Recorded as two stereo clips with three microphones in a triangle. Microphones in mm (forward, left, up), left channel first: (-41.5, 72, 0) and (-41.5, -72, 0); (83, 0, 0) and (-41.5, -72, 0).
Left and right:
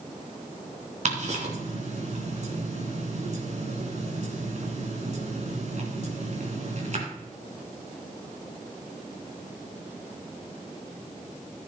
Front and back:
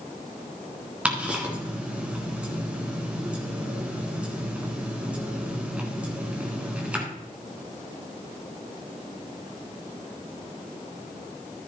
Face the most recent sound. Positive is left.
turn(degrees=-70)